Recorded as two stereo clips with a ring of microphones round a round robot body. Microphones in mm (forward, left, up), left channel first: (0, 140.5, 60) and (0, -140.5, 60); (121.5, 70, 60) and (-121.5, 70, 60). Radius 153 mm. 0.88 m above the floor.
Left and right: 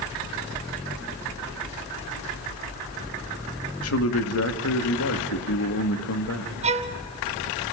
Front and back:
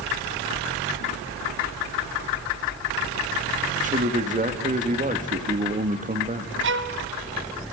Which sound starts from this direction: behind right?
A violin, at 6.6 s.